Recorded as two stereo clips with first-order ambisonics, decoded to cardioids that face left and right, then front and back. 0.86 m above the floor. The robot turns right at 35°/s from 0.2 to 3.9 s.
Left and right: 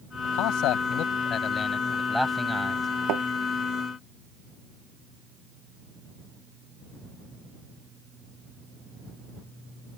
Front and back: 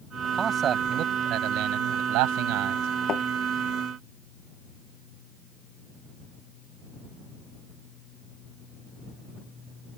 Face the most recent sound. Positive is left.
turn(degrees=-30)